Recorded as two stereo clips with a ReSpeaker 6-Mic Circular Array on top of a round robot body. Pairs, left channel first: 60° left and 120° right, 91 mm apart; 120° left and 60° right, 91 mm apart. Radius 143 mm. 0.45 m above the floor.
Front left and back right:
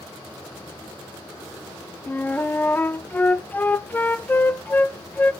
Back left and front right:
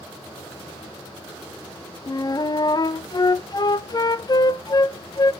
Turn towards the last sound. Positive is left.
turn(degrees=120)